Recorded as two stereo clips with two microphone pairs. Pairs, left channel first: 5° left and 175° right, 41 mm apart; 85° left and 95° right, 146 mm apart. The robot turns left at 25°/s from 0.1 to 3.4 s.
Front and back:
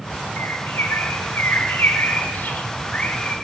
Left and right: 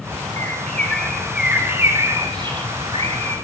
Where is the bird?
15° left, 6.5 m; by 3.4 s 60° right, 6.5 m.